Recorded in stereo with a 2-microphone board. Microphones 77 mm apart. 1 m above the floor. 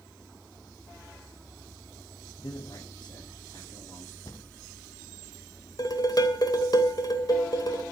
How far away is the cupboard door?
About 1.6 m.